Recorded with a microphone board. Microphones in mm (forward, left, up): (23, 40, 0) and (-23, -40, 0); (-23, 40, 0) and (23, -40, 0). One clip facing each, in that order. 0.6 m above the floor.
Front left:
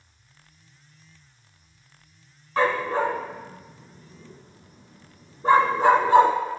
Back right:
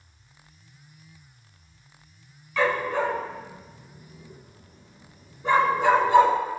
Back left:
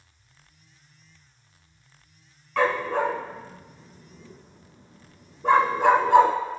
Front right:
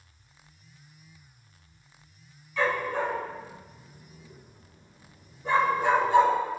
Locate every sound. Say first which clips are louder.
2.6 s a dog barking: front left 1 dB, back left 4 dB; 110° left, 1.6 m